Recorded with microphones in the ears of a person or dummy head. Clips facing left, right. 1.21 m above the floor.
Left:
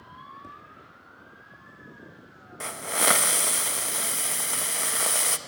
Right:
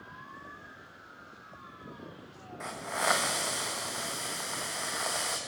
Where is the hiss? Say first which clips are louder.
Left 4 dB; 40° left (ahead or behind), 0.8 m.